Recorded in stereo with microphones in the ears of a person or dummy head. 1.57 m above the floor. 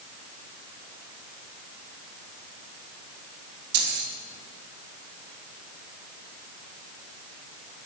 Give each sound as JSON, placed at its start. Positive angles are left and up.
{"t": 3.7, "sound": "keys jangling", "side_deg": -70, "distance_m": 3.5}